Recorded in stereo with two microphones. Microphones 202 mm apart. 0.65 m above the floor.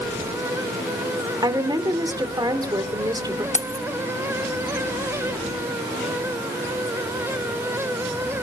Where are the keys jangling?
35° left (ahead or behind), 0.9 m.